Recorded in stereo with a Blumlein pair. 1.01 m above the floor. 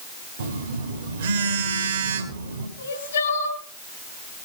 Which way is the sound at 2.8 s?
70° left.